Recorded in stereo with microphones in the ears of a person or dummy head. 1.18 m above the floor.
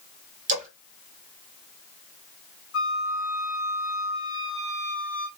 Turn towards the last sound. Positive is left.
turn(degrees=80)